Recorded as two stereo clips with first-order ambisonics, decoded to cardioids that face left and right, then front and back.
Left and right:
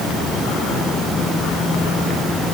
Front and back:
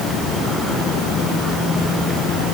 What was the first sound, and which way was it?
Only background noise.